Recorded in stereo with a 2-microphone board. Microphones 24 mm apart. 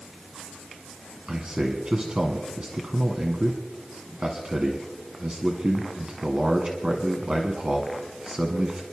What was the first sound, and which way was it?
A man speaking, 40° right (ahead or behind).